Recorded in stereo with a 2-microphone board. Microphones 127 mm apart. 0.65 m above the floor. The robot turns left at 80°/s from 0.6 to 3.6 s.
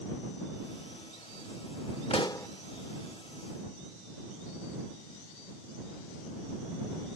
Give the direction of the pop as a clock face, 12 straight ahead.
10 o'clock.